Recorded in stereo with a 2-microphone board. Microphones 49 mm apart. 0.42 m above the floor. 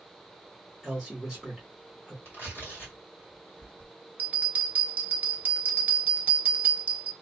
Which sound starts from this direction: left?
Tearing paper, at 2.2 s.